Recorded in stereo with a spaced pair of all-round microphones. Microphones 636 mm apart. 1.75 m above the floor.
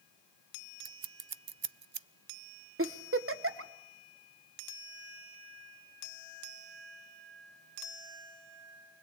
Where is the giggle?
20° right (ahead or behind), 0.9 m.